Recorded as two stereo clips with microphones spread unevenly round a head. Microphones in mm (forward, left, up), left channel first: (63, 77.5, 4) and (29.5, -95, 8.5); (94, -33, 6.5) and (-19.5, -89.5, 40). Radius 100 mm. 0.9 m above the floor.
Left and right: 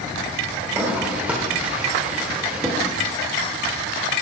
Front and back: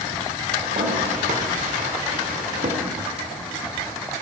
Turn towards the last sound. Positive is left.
turn(degrees=175)